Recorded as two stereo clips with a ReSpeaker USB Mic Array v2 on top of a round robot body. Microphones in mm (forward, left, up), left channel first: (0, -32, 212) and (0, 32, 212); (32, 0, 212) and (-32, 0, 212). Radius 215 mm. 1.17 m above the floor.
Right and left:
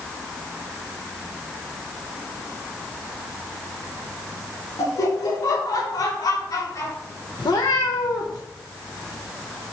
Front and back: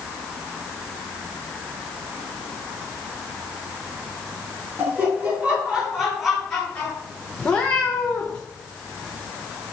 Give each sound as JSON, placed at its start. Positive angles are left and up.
{"t": 4.8, "sound": "laughter", "azimuth_deg": -115, "distance_m": 2.0}
{"t": 7.4, "sound": "a cat meowing", "azimuth_deg": -75, "distance_m": 0.6}